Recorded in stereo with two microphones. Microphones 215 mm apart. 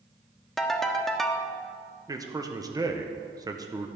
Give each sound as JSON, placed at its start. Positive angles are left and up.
{"t": 0.6, "sound": "a ringtone", "side_deg": 0, "distance_m": 0.8}
{"t": 2.1, "sound": "a man speaking", "side_deg": -15, "distance_m": 0.8}